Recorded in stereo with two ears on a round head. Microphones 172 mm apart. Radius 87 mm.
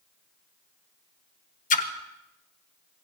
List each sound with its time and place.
1.7 s a splash: 45° left (ahead or behind), 1.2 m